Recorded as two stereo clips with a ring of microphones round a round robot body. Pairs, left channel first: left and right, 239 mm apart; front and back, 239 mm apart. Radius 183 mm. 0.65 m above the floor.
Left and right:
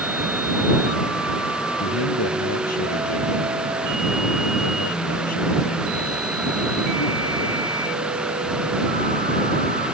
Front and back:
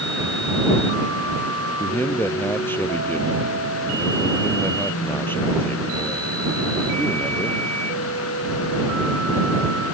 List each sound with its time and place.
1.8 s a man speaking: 80° left